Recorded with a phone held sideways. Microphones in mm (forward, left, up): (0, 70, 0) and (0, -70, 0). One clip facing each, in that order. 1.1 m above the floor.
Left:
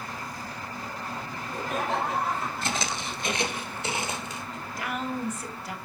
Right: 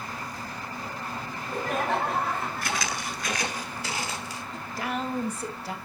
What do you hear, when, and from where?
1.3 s laughter: 65° right (ahead or behind), 5 m
2.6 s footsteps: 25° left (ahead or behind), 1.1 m
4.5 s a woman speaking: 30° right (ahead or behind), 1.6 m